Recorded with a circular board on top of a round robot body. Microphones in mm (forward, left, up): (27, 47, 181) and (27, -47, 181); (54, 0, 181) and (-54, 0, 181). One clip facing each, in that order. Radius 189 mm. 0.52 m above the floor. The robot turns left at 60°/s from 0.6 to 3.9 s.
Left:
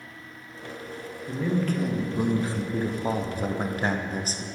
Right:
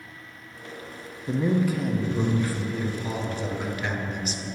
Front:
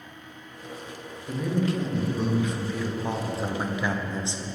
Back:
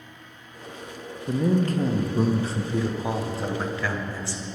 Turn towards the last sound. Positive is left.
turn(degrees=60)